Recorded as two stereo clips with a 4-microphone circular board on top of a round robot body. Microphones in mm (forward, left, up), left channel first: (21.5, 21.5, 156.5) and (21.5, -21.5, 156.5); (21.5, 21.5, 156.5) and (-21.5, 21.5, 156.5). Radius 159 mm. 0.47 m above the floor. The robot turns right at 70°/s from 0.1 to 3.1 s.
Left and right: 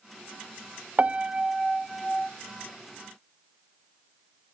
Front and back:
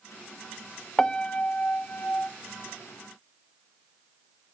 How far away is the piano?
About 0.6 m.